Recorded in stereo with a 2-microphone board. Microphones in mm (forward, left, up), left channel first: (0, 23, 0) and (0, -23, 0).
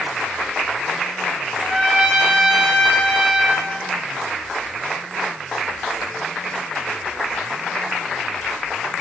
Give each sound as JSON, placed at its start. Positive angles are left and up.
{"t": 1.6, "sound": "a trumpet", "side_deg": 5, "distance_m": 8.5}